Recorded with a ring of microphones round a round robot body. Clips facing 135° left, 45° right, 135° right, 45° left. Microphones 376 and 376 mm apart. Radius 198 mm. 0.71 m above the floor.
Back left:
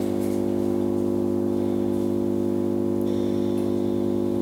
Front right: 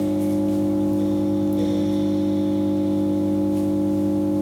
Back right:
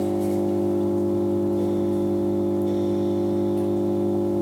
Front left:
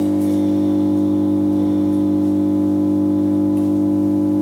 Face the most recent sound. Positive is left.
turn(degrees=-20)